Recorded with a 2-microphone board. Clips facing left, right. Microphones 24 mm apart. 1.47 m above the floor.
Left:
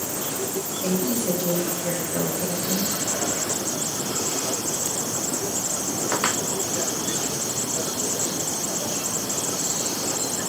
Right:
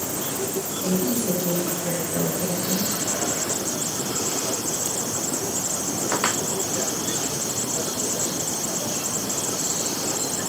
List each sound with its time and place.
0.8 s a woman speaking: 45° left (ahead or behind), 3 m; by 2.9 s 5° right (ahead or behind), 4 m